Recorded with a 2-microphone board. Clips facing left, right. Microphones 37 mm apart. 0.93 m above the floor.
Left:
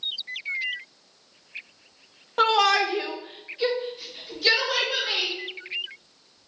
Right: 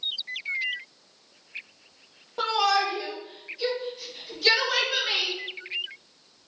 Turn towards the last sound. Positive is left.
turn(degrees=-5)  # may be behind; listen again after turning